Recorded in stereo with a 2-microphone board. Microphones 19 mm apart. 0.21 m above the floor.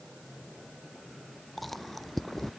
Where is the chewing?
5° left (ahead or behind).